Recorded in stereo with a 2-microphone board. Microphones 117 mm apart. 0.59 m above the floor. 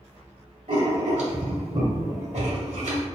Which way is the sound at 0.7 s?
75° right (ahead or behind).